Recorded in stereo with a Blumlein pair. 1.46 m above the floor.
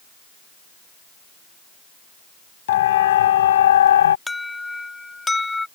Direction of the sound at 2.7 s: 55° left.